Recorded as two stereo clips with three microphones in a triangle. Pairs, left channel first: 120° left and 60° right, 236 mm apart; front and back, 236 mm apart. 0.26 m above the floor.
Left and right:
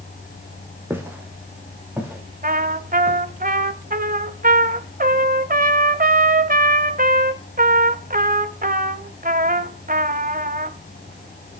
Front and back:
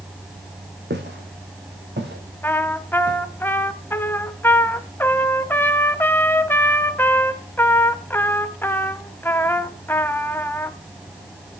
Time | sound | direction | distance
0.9 | footsteps | 140° right | 4 m
2.4 | a trumpet | 75° right | 0.7 m